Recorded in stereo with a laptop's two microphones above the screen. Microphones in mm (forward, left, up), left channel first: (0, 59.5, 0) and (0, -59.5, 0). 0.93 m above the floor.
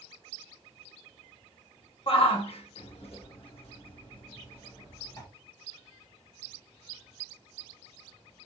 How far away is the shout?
About 1.1 m.